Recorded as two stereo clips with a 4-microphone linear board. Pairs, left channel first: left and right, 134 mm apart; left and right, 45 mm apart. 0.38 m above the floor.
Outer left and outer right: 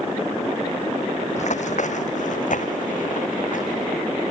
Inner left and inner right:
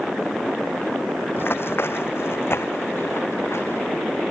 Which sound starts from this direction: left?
Running footsteps, at 1.4 s.